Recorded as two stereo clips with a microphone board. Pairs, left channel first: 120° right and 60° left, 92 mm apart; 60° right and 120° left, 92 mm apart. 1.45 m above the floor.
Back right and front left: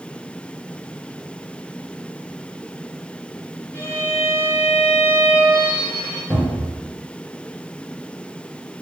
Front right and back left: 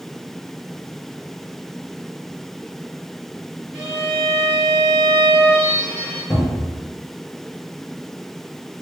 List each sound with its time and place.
3.7 s a violin: 165° right, 1.5 m
6.3 s a cupboard door: 55° right, 0.8 m